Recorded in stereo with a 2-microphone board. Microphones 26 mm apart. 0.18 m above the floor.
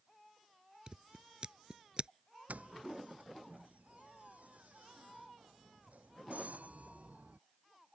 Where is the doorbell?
80° right.